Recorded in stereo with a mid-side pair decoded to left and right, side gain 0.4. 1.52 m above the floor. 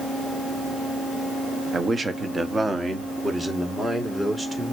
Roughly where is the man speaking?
Ahead right.